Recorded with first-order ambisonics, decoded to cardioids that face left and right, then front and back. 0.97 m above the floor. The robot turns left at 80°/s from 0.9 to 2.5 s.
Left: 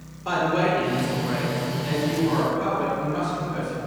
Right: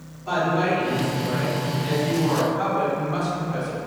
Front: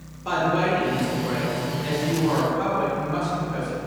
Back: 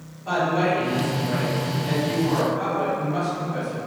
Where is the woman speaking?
50° left, 1.4 m; by 3.8 s 75° right, 1.4 m.